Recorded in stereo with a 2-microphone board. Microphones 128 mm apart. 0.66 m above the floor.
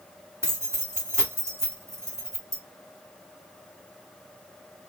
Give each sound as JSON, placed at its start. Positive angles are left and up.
{"t": 0.4, "sound": "keys jangling", "side_deg": -20, "distance_m": 1.1}